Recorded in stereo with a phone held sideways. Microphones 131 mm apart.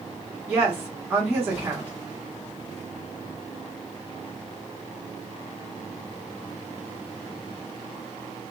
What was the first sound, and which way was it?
A woman speaking, 15° right (ahead or behind).